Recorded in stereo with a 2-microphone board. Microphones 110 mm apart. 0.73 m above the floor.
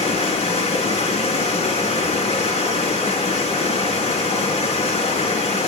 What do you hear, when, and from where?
0.0 s running water: 85° left, 4.5 m